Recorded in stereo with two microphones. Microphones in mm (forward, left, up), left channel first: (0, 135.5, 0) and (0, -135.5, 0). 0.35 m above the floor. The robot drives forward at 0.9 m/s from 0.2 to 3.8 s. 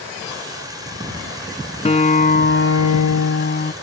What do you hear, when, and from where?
1.9 s a guitar: 25° left (ahead or behind); by 3.7 s 35° left (ahead or behind)